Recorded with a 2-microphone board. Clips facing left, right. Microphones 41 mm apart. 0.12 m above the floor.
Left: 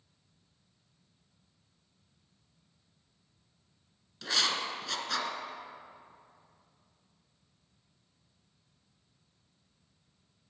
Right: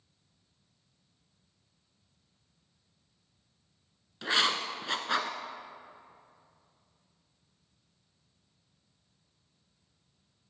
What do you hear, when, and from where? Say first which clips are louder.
4.2 s writing: right 3 dB; 30° right (ahead or behind), 0.9 m